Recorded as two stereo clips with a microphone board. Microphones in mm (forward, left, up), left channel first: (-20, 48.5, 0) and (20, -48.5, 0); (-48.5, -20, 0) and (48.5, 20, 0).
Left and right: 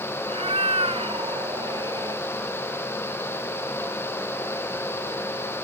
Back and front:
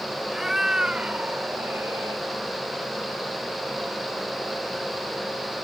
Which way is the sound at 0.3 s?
65° right.